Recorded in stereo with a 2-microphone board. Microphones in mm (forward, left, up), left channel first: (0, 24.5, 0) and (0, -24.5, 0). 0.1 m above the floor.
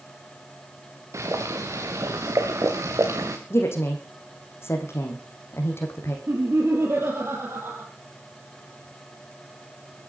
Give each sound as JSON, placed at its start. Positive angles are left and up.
{"t": 1.1, "sound": "boiling", "side_deg": -85, "distance_m": 3.5}
{"t": 3.5, "sound": "a woman speaking", "side_deg": 55, "distance_m": 4.5}
{"t": 6.3, "sound": "laughter", "side_deg": -55, "distance_m": 3.5}